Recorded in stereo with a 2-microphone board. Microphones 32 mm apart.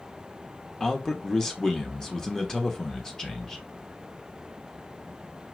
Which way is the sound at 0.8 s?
20° left (ahead or behind).